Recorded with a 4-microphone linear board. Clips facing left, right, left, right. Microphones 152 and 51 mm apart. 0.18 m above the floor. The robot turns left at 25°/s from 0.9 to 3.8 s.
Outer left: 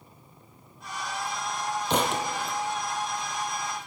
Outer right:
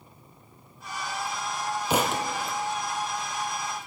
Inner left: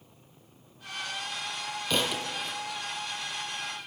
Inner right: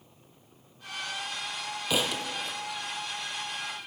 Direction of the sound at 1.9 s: 10° right (ahead or behind).